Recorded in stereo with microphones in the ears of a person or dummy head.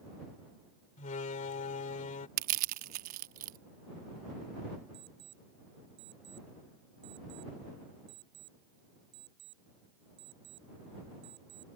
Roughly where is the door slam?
Left.